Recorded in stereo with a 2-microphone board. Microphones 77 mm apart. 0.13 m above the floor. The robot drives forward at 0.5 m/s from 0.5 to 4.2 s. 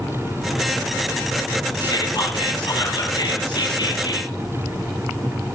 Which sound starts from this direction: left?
Whispering, at 1.8 s.